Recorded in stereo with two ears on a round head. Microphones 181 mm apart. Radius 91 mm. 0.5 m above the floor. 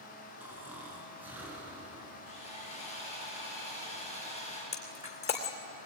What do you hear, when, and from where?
0.4 s snoring: 10° right (ahead or behind), 5.5 m
2.3 s sawing: 35° left (ahead or behind), 9.5 m
4.7 s breaking glass: 35° left (ahead or behind), 2.5 m